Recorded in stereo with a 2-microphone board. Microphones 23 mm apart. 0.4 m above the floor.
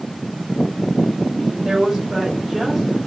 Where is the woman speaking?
40° right (ahead or behind), 1.6 m; by 3.0 s 10° right (ahead or behind), 1.3 m.